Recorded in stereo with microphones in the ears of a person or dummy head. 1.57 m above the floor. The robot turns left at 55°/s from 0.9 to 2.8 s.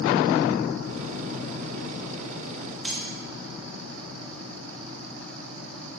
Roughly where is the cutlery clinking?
Centre.